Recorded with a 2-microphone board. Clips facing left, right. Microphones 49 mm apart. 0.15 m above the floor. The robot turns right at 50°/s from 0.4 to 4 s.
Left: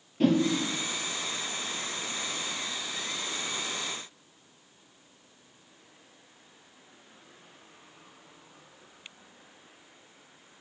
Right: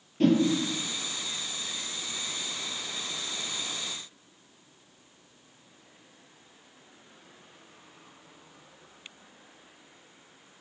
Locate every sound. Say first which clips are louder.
0.2 s a whoosh: right 1 dB; 5° left (ahead or behind), 1.4 m